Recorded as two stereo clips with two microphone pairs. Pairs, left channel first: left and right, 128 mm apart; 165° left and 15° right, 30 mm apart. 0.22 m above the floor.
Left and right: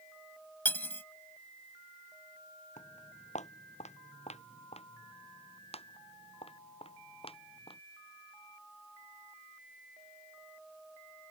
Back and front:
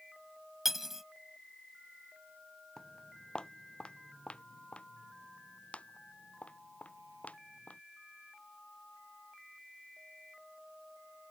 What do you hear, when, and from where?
0.7 s cutlery clinking: 45° left
2.8 s footsteps: 100° left; by 7.8 s 130° left